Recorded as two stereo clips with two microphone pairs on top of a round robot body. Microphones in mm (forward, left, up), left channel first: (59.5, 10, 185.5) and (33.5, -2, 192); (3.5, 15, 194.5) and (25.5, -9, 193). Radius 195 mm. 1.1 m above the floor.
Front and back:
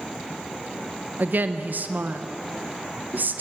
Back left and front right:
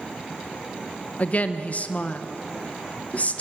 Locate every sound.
1.2 s a woman speaking: straight behind, 1.2 m